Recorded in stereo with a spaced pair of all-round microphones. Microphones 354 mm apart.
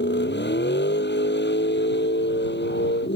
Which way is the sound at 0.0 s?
30° left (ahead or behind).